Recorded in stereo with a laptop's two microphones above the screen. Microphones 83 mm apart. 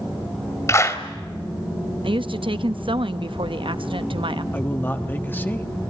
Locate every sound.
0.7 s a clap: 35° left (ahead or behind), 3 m
2.0 s a woman speaking: 70° right (ahead or behind), 0.8 m
4.5 s a man speaking: 20° left (ahead or behind), 1.2 m